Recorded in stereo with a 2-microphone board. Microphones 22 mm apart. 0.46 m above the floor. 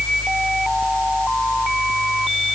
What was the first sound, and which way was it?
Only background noise.